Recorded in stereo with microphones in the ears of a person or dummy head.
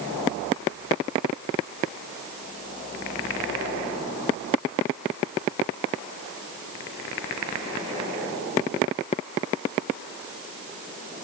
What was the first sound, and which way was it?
Only background noise.